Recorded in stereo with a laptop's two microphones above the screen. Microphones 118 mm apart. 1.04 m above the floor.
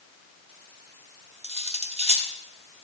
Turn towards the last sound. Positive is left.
turn(degrees=-60)  # may be behind; listen again after turning